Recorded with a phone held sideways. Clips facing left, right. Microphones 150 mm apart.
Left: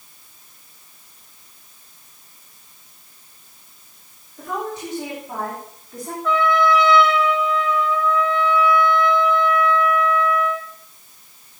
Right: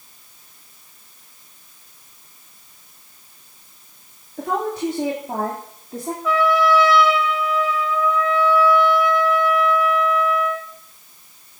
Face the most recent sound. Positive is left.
turn(degrees=-5)  # may be behind; listen again after turning